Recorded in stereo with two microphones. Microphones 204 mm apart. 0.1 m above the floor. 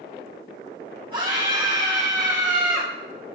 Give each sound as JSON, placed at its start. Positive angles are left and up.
{"t": 1.1, "sound": "a scream", "side_deg": -25, "distance_m": 5.5}